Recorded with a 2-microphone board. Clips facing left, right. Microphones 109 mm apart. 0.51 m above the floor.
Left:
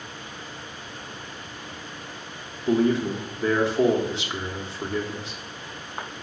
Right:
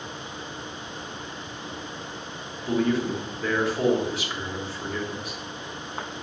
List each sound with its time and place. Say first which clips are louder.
2.7 s a man speaking: left 3 dB; 25° left (ahead or behind), 0.7 m